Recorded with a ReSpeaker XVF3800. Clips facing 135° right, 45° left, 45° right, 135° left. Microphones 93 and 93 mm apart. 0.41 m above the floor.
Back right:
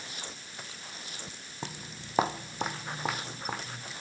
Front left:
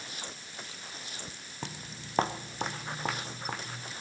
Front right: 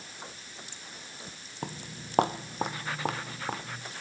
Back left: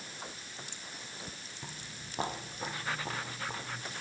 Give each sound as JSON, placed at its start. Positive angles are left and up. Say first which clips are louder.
{"t": 1.6, "sound": "footsteps", "louder": "back right 1 dB, front right 10 dB", "azimuth_deg": -50, "distance_m": 0.6}